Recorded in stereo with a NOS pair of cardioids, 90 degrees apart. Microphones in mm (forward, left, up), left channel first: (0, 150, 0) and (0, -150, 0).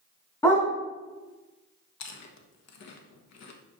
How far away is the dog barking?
About 4 m.